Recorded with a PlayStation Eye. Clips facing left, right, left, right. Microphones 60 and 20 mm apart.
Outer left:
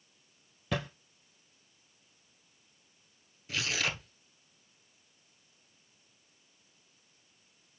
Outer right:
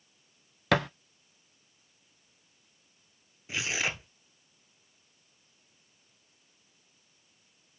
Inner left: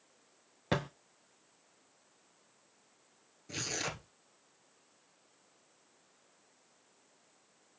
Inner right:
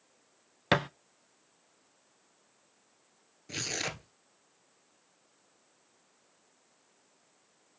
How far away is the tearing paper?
About 1.1 m.